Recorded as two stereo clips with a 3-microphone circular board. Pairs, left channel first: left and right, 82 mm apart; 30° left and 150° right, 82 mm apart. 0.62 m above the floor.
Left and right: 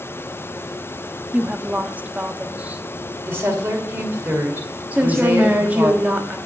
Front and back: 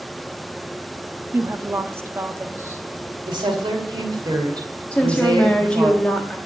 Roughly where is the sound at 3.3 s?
Behind right.